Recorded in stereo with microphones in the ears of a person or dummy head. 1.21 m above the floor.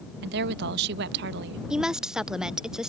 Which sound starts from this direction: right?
A woman speaking, at 0.2 s.